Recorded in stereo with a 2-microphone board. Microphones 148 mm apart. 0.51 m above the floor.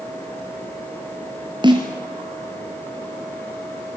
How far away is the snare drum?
About 4.5 m.